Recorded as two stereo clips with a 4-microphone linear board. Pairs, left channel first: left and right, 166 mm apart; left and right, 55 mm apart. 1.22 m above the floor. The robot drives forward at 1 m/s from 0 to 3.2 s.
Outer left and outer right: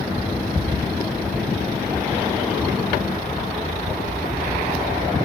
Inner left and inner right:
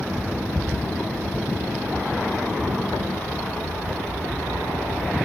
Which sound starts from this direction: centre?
Ticking, at 0.6 s.